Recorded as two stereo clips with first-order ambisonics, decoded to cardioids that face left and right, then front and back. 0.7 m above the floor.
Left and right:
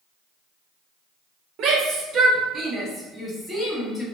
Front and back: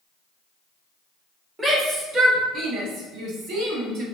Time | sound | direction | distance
1.6 | a shout | 110° right | 1.1 m